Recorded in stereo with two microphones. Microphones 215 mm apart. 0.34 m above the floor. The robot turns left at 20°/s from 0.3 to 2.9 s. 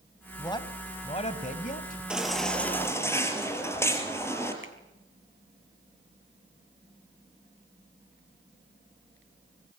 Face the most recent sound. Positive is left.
turn(degrees=-70)  # may be behind; listen again after turning